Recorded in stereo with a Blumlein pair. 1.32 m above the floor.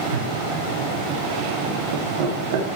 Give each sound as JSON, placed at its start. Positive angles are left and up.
{"t": 0.1, "sound": "laughter", "azimuth_deg": -50, "distance_m": 4.5}